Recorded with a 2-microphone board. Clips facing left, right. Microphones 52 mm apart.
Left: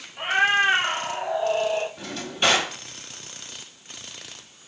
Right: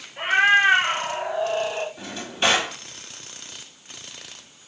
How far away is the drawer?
About 1.4 m.